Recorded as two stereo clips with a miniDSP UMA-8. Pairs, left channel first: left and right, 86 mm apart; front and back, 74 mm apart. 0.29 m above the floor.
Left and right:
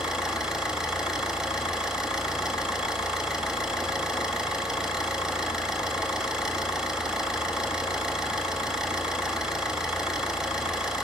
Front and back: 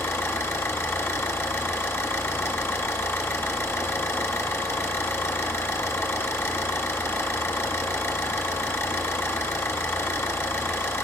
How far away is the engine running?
About 1.2 m.